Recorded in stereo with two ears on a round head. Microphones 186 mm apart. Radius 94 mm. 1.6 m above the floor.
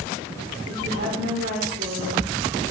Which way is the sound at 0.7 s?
55° right (ahead or behind).